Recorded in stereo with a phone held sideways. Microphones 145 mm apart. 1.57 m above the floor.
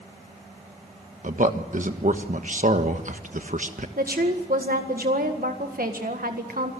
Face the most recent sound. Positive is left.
turn(degrees=-85)